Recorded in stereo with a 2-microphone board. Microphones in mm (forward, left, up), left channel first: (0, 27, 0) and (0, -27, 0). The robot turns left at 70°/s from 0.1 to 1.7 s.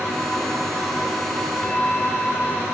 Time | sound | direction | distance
1.6 | a bell | 20° left (ahead or behind) | 0.6 m